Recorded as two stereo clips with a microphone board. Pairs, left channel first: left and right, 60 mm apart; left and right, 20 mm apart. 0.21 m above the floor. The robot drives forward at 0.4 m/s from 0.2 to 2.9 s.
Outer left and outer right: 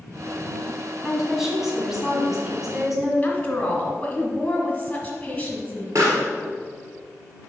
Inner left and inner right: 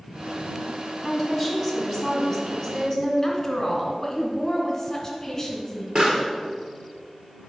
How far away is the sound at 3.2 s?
About 1.7 m.